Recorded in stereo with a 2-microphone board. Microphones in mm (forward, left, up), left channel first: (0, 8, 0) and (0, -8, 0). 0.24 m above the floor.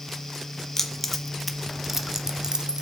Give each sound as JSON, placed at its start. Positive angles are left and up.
{"t": 0.8, "sound": "keys jangling", "side_deg": 25, "distance_m": 1.4}